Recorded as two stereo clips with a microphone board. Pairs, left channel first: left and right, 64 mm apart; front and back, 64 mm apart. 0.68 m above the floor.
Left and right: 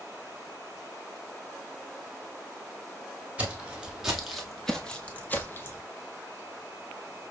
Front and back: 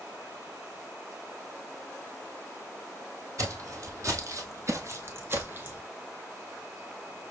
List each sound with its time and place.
3.4 s footsteps: 160° right, 1.3 m; by 5.8 s 125° left, 1.0 m